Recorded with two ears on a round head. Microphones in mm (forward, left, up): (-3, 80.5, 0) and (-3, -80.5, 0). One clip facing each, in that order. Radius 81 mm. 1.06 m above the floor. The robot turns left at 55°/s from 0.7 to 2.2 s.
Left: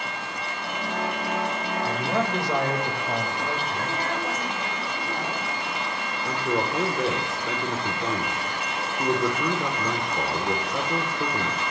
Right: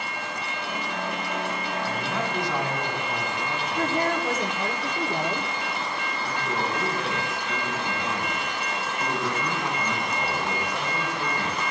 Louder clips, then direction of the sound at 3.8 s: Right 4 dB; 85° right.